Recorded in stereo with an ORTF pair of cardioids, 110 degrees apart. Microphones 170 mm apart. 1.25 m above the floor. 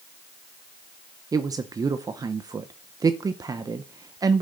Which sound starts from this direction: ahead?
A woman speaking, at 1.3 s.